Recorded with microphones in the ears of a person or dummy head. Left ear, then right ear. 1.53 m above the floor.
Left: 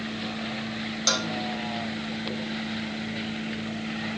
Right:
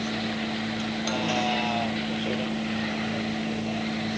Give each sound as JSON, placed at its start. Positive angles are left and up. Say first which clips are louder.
{"t": 0.0, "sound": "a vehicle", "louder": "right 3 dB", "side_deg": -75}
{"t": 1.1, "sound": "a cowbell", "louder": "left 4 dB", "side_deg": 60}